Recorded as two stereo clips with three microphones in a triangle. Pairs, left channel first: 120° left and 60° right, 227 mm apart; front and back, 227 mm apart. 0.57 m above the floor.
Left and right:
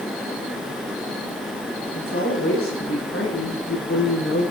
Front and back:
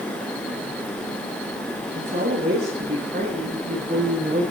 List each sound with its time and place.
1.9 s a woman speaking: 135° left, 8 m